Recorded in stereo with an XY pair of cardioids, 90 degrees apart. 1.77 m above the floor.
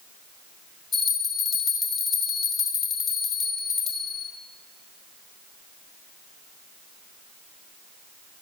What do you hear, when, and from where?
0.9 s a bell: 60° left, 2.5 m